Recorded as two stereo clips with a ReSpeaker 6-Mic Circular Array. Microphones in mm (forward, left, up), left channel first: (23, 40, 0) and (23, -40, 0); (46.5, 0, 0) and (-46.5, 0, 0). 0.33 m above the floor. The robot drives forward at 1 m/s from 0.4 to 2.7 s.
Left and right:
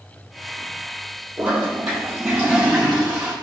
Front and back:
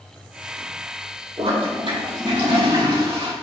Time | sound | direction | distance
1.4 | a toilet flushing | 165° right | 3 m